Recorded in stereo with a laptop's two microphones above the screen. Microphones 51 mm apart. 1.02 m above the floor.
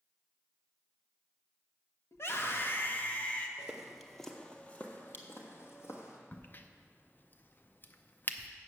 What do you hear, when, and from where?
2.1 s a scream: 55° left (ahead or behind), 1.2 m; by 3.5 s 20° left (ahead or behind), 1.4 m
3.6 s footsteps: 15° right (ahead or behind), 1.2 m; by 6.2 s 60° left (ahead or behind), 2 m
6.3 s a crack: 40° left (ahead or behind), 0.5 m